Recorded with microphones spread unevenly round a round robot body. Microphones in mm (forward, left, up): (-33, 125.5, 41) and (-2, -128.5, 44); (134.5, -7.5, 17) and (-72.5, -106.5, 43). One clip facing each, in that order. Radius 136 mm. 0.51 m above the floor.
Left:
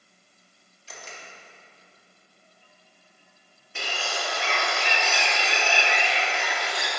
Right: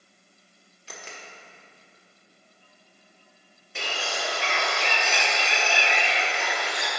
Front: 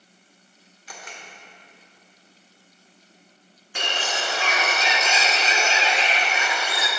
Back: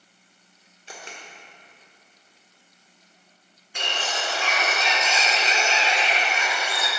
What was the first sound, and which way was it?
A camera shutter, 90° right.